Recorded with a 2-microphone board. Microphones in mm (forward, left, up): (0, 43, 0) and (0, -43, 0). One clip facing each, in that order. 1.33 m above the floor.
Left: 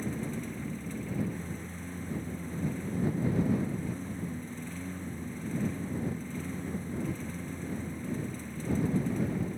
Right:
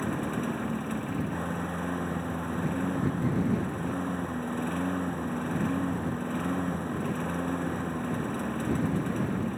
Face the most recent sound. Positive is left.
turn(degrees=-65)  # may be behind; listen again after turning